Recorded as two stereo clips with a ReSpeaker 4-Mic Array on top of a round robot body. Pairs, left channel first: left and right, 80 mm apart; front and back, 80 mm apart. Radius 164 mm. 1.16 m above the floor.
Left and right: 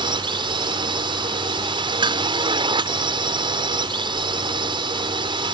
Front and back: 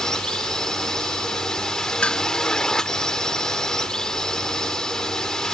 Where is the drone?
80° right.